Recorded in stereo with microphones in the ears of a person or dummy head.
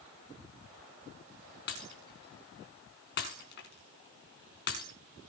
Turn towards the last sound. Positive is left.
turn(degrees=60)  # may be behind; listen again after turning